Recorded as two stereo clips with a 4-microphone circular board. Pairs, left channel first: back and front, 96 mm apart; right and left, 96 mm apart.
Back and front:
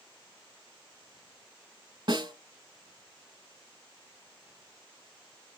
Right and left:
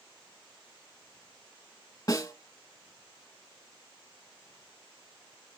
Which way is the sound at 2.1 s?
35° right.